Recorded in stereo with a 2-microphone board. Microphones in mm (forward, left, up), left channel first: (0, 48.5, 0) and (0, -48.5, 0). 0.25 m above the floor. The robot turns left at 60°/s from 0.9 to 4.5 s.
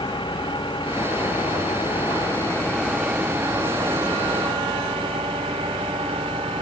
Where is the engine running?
125° left; by 6.6 s 95° right.